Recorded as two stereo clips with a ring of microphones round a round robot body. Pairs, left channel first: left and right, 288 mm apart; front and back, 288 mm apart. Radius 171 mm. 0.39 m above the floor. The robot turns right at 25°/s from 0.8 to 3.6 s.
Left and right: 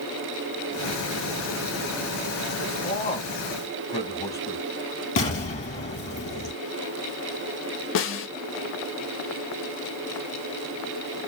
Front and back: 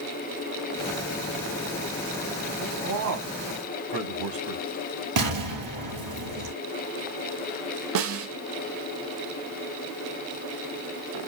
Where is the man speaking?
140° left, 3 m; by 4.7 s 170° left, 3 m.